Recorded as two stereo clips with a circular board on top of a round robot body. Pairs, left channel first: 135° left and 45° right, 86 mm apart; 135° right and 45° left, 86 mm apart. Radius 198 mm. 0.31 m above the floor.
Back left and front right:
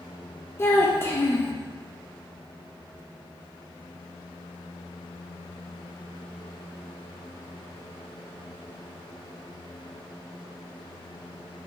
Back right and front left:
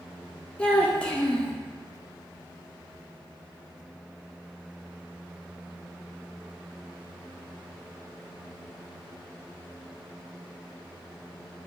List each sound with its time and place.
0.6 s a child speaking: 160° left, 0.6 m